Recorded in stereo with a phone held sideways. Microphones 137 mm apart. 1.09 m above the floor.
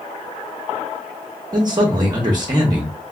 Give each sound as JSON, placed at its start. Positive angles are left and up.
{"t": 1.5, "sound": "a man speaking", "side_deg": -30, "distance_m": 0.7}